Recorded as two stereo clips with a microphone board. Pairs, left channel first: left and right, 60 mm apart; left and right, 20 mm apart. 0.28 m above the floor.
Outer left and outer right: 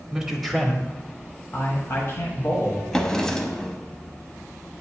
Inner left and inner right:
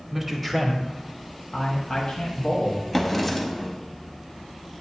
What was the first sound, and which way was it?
A man speaking, 10° right (ahead or behind).